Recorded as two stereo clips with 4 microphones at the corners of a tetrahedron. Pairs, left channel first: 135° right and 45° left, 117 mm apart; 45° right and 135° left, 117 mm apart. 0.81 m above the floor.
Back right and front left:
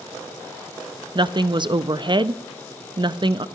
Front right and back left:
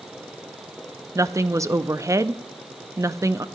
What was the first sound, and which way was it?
A woman speaking, 80° left.